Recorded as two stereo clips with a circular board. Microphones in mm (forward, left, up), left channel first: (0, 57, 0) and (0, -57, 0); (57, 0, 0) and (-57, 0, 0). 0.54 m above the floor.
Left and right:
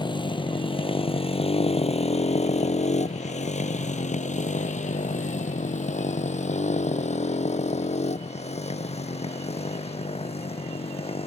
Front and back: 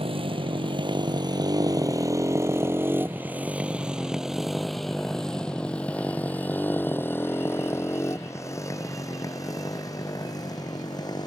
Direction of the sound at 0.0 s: 140° left.